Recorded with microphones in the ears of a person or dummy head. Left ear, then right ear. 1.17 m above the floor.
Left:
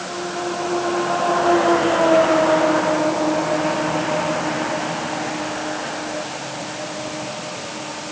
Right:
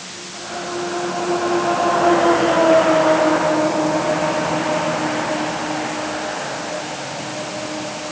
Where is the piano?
No piano in this recording.